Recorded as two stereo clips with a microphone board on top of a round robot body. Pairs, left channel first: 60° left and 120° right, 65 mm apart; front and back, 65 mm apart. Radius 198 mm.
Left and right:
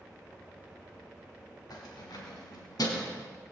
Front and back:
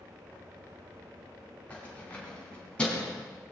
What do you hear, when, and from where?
1.7 s keys jangling: 70° left, 4 m; by 3.2 s 75° left, 3 m